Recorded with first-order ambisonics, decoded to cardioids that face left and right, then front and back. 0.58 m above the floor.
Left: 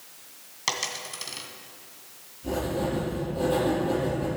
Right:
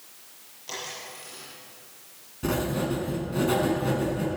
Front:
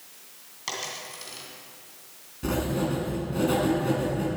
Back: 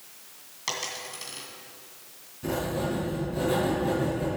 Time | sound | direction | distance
0.7 | a dropped coin | 95° left | 2.5 m
2.4 | writing | 65° right | 5 m